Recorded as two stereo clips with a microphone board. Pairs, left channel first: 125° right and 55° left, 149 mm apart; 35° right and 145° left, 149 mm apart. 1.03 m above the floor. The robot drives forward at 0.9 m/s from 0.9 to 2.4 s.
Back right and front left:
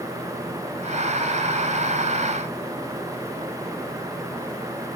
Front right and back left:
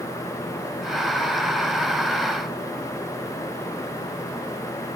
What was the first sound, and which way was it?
Only background noise.